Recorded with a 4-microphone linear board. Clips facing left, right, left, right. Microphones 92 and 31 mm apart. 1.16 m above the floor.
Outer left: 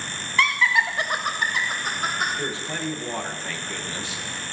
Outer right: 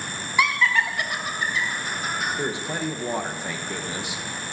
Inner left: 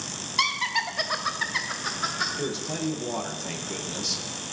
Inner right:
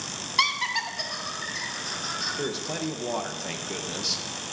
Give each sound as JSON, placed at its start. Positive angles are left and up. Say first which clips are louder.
{"t": 0.4, "sound": "laughter", "louder": "even, even", "side_deg": -15, "distance_m": 1.0}
{"t": 2.4, "sound": "a man speaking", "louder": "outer right 2 dB, even", "side_deg": -20, "distance_m": 0.7}